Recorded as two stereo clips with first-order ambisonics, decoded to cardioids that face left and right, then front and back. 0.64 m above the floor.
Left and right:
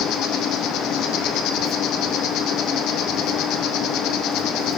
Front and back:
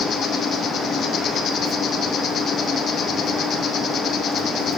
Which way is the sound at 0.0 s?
55° left.